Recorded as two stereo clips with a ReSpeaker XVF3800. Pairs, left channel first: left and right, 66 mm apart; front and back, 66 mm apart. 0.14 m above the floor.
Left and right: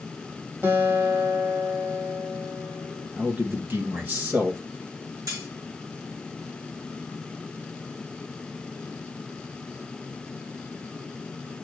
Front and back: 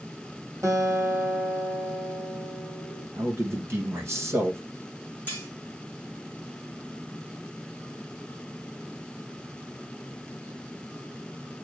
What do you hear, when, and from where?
0.6 s a guitar: 135° right, 2 m
3.2 s a man speaking: 145° right, 1.9 m
5.3 s cutlery clinking: 115° right, 4.5 m